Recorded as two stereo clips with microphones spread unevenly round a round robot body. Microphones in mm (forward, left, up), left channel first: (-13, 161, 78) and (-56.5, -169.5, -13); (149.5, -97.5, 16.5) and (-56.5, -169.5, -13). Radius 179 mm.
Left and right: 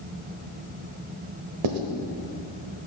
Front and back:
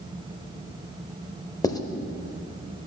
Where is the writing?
55° right, 1.0 m.